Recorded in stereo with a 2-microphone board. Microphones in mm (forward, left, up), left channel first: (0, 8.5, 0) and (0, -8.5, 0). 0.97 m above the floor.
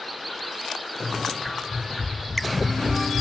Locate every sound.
1.0 s running footsteps: 20° left (ahead or behind), 1.0 m; by 3.2 s 40° right (ahead or behind), 1.2 m